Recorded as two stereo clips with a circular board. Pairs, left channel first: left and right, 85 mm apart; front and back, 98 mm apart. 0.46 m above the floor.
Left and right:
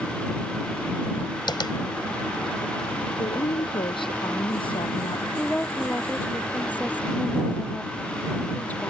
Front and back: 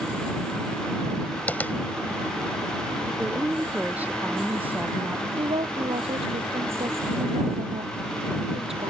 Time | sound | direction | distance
1.5 | tapping | 70° left | ?
3.2 | a woman speaking | 105° left | ?
5.4 | a woman speaking | 160° left | ?